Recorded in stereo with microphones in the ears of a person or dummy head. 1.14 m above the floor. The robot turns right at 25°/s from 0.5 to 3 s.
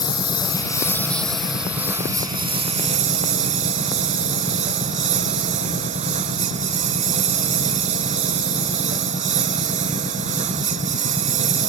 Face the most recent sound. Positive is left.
turn(degrees=-130)